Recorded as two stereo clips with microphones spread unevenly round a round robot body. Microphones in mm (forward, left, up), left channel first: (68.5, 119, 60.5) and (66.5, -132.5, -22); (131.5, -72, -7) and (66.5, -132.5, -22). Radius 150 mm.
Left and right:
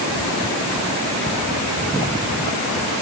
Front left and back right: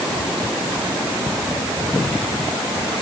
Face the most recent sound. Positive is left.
No sound to turn to.